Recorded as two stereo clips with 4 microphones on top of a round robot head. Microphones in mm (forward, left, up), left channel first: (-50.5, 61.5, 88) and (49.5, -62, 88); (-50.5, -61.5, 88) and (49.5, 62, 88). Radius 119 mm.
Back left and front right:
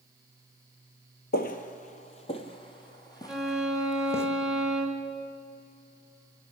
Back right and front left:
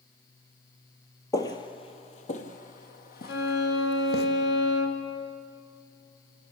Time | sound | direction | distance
1.3 | footsteps | 160° left | 1.0 m
3.3 | a violin | 140° right | 2 m